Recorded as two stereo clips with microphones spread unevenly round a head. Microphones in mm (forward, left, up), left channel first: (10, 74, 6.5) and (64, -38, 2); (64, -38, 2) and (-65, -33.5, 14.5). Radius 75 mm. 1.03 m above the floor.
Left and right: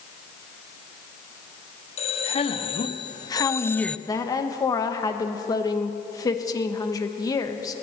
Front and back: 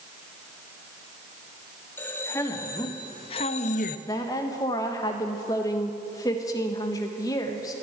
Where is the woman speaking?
55° left, 1.3 m.